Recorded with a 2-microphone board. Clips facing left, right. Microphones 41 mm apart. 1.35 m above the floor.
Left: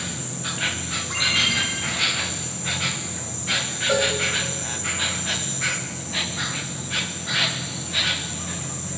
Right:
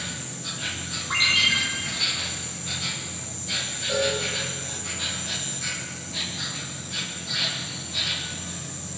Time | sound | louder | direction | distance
0.0 | an insect | left 3 dB | 60° left (ahead or behind) | 1.0 m
1.1 | a ringtone | right 1 dB | 20° right (ahead or behind) | 8 m
3.9 | a cowbell | left 3 dB | 85° left | 5 m